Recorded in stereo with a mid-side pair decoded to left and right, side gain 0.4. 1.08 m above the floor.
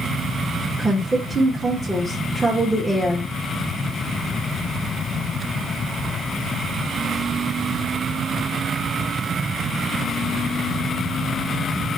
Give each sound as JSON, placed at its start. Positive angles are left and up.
{"t": 0.8, "sound": "a woman speaking", "azimuth_deg": -10, "distance_m": 1.2}